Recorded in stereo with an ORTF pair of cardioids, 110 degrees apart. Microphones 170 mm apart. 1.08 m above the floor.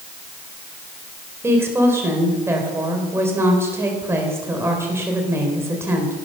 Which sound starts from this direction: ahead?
A woman speaking, at 1.4 s.